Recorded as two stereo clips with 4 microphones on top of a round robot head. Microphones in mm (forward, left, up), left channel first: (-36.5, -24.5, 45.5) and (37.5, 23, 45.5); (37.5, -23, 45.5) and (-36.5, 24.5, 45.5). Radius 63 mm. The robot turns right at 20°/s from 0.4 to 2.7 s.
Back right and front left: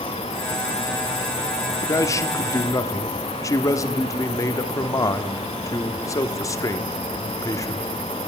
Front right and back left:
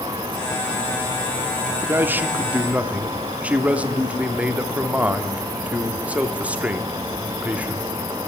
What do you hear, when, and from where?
1.8 s a man speaking: 165° right, 1.0 m; by 7.9 s 150° right, 1.0 m